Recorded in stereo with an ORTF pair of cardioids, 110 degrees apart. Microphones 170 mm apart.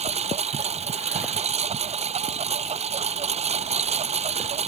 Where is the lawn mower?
40° right.